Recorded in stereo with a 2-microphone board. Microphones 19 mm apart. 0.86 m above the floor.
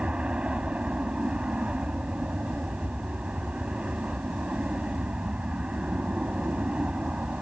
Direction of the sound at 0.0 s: 70° right (ahead or behind).